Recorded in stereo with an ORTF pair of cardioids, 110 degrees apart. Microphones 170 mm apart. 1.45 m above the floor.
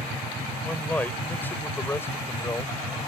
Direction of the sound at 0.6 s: 10° left.